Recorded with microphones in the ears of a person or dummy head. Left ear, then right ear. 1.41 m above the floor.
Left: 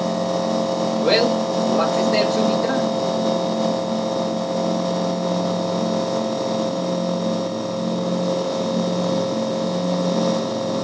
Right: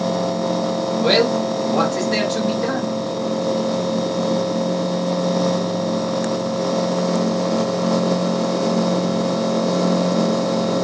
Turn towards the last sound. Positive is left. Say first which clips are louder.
# right 2 dB
turn(degrees=-80)